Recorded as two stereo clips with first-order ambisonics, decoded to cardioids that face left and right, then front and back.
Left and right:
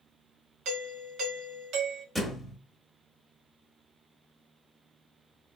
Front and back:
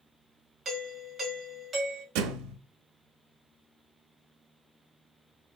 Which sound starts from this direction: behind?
A thud, at 2.1 s.